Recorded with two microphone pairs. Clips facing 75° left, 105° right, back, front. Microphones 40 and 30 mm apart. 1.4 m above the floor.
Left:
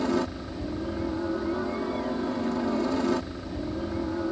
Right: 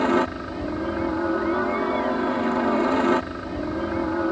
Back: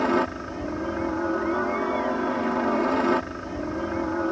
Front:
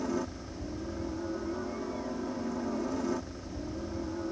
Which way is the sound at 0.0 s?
155° right.